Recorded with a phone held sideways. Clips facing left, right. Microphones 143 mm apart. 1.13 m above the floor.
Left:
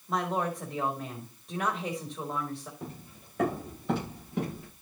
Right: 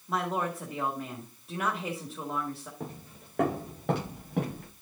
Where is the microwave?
I don't hear a microwave.